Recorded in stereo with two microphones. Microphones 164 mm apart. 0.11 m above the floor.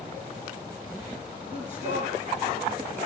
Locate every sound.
1.4 s a man speaking: 45° right (ahead or behind), 4.5 m; by 3.0 s 35° right (ahead or behind), 4.5 m